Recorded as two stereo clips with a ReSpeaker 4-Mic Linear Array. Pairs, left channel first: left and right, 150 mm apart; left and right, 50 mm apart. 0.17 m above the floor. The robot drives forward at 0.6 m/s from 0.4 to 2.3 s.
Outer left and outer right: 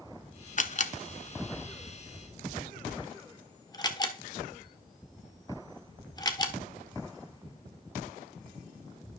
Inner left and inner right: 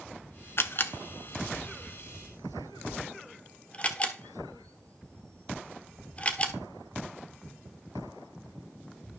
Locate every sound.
0.6 s a camera shutter: 55° left (ahead or behind), 0.6 m; by 6.5 s 25° left (ahead or behind), 1.3 m